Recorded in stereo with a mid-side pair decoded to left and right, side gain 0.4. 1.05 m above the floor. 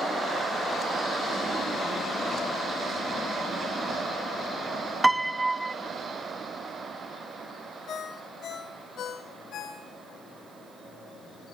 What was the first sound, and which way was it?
A piano, 15° right.